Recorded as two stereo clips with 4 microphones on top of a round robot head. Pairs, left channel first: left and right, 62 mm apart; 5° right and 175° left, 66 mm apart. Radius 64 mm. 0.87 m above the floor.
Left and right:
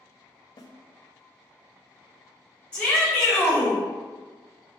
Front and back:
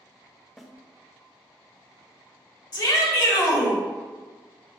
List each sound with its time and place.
0.6 s a snare drum: 80° left, 0.6 m
2.7 s a shout: 15° left, 1.5 m